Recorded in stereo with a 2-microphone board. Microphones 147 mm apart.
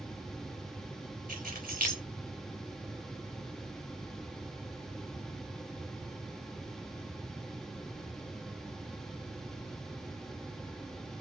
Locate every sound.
1.3 s keys jangling: 75° right (ahead or behind), 3 m